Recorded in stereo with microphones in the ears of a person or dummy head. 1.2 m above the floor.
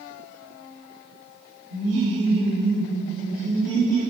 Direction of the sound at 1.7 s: 60° right (ahead or behind).